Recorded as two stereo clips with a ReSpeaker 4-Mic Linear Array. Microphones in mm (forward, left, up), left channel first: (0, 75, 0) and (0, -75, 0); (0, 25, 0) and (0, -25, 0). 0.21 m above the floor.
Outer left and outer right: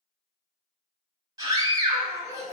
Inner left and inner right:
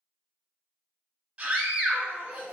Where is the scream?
25° right (ahead or behind), 1.0 m.